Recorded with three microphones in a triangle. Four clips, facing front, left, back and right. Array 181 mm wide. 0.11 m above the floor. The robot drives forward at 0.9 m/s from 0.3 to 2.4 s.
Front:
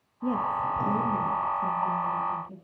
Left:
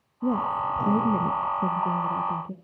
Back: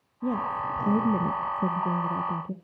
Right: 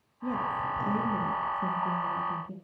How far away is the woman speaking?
About 1.4 m.